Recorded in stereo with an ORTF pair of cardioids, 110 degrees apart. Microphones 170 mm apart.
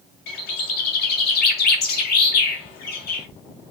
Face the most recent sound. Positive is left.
turn(degrees=70)